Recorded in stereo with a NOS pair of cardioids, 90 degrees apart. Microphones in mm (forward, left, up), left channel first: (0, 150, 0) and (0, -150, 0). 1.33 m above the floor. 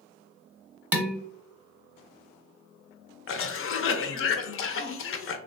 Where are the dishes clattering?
5° right, 0.8 m.